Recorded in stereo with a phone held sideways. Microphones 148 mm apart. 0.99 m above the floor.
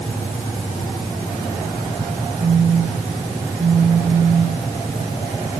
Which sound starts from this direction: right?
A phone buzzing, at 2.4 s.